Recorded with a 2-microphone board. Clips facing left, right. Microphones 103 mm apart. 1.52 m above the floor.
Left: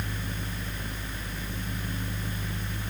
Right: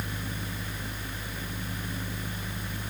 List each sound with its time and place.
Only background noise.